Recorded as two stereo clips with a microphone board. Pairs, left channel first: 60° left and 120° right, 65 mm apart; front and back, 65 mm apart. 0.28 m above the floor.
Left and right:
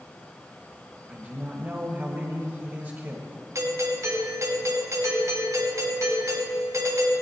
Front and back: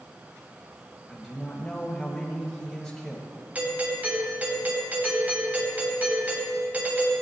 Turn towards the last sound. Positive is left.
turn(degrees=-120)